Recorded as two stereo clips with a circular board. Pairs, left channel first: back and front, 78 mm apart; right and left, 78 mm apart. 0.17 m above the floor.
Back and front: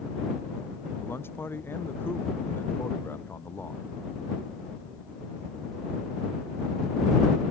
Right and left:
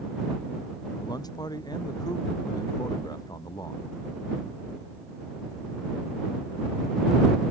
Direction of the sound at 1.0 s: 120° right.